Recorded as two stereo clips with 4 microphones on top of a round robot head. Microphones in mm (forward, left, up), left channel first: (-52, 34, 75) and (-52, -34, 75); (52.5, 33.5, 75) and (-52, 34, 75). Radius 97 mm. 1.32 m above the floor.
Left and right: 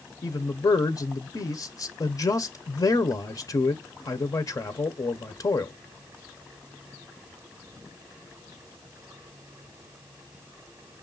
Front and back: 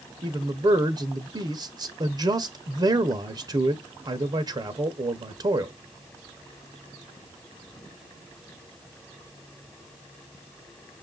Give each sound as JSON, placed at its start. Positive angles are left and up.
{"t": 0.2, "sound": "a man speaking", "azimuth_deg": 130, "distance_m": 0.7}